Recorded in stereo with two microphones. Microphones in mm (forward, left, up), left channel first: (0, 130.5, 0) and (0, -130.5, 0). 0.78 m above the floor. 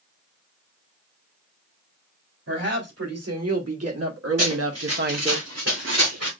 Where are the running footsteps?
70° right (ahead or behind), 4.5 m; by 6.3 s 80° right, 4 m.